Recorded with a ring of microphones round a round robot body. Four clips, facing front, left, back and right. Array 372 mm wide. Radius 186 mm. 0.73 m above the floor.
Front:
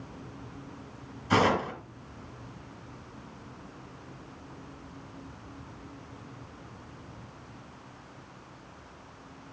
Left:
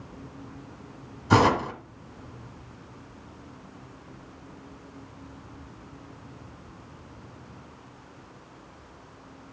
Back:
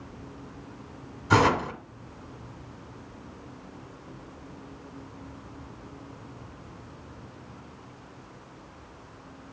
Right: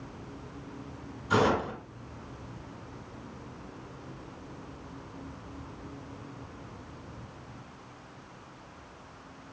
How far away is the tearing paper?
About 2.0 m.